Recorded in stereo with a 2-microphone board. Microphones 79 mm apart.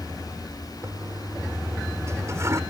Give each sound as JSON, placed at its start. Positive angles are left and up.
{"t": 0.8, "sound": "a toilet flushing", "side_deg": -40}